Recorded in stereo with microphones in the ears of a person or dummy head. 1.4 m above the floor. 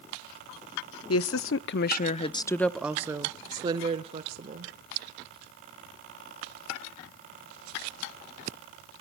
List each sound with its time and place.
1.1 s a woman speaking: 70° left (ahead or behind), 0.8 m; by 4.7 s 35° right (ahead or behind), 1.5 m